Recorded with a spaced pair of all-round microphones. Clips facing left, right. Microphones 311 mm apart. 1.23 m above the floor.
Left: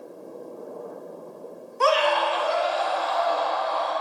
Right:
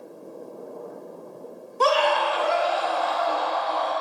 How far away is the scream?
About 1.3 m.